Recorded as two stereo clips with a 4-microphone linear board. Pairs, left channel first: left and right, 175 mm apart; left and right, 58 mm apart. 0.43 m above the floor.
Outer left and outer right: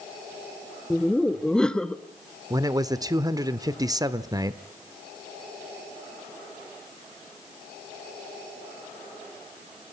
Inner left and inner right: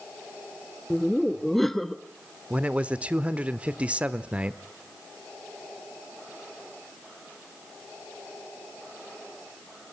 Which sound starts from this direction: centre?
Laughter, at 0.9 s.